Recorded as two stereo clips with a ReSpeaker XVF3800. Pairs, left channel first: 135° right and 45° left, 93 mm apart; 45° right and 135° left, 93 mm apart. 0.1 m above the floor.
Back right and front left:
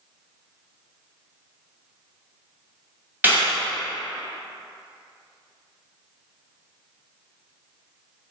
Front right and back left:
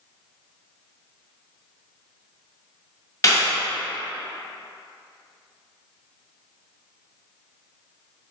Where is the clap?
15° right, 1.3 m.